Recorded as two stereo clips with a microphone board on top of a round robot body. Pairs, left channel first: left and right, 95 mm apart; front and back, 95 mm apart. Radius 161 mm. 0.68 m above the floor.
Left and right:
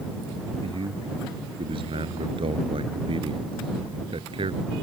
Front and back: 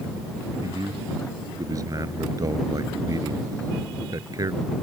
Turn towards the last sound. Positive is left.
turn(degrees=-125)